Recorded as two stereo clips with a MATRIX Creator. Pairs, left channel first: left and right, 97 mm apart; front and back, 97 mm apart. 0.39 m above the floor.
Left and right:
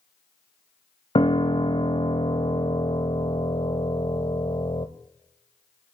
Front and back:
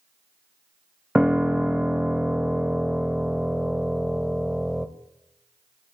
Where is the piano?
95° left, 0.9 m.